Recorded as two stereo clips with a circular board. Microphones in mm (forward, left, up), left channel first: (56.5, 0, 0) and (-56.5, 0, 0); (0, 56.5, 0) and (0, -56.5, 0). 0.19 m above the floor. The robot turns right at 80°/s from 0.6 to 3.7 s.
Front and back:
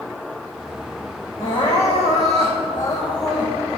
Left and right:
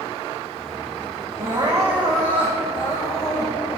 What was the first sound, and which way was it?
Crying, 60° right.